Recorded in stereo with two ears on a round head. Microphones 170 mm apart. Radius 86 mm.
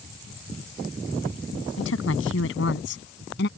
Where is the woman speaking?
70° left (ahead or behind); by 3.5 s 55° left (ahead or behind).